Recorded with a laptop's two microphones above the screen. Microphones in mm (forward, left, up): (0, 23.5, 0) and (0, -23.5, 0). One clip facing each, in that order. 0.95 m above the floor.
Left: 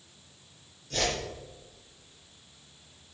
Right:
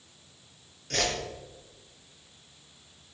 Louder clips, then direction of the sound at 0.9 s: Right 1 dB; 70° right (ahead or behind).